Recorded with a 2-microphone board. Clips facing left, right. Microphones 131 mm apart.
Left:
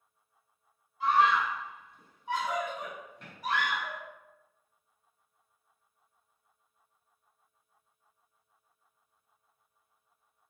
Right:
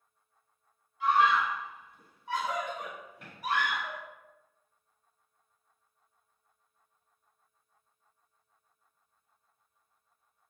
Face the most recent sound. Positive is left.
turn(degrees=-20)  # may be behind; listen again after turning